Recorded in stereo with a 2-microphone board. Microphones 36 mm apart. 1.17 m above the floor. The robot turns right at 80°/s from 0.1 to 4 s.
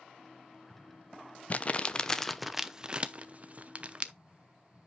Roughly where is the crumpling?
Left.